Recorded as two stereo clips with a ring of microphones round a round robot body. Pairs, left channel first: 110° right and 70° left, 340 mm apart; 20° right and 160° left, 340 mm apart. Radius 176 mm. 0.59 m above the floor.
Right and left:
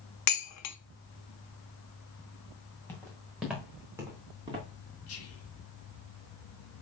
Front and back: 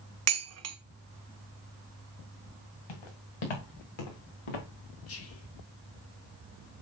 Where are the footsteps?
30° right, 3 m; by 4.7 s 10° right, 3 m.